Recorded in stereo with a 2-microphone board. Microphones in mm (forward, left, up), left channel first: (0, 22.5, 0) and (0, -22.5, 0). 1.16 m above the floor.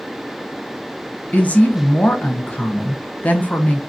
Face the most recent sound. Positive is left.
turn(degrees=35)  # may be behind; listen again after turning